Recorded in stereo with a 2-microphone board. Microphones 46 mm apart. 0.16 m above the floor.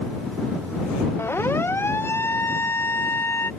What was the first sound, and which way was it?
A siren, 55° left (ahead or behind).